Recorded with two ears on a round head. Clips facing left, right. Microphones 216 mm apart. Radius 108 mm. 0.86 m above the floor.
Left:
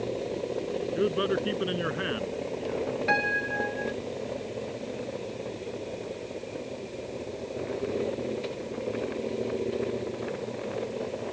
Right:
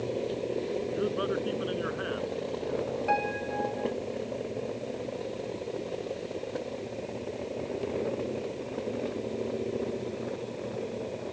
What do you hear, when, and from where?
0.9 s a man speaking: 35° left (ahead or behind)
3.1 s a piano: 30° left (ahead or behind)